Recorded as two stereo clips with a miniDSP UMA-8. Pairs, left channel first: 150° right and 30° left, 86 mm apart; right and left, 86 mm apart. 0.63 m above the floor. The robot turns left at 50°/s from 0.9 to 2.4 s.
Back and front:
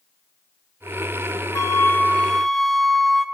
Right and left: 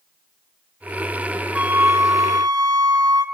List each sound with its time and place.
1.6 s a flute: 165° left, 0.9 m; by 3.2 s 125° left, 0.9 m